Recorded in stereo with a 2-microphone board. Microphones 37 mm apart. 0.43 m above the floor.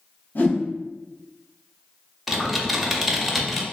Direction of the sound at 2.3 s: Centre (ahead or behind).